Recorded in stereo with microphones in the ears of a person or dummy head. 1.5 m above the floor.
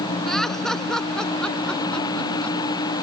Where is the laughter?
Centre (ahead or behind); by 2.6 s 5° left (ahead or behind).